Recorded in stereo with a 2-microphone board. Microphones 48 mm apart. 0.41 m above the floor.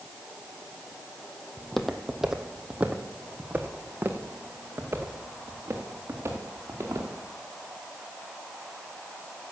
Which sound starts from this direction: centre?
Footsteps, at 1.6 s.